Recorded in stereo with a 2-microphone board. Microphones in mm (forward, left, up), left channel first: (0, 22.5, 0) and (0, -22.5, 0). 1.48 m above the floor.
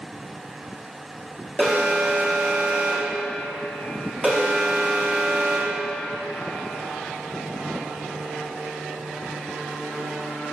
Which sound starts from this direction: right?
An alarm, at 1.6 s.